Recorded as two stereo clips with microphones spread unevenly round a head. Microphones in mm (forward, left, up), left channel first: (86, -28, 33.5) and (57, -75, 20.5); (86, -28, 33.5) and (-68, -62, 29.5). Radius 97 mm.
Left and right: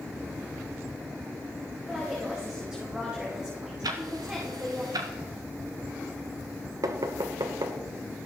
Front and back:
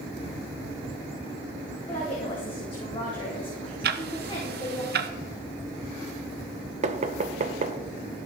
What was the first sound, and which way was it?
A woman speaking, 45° right.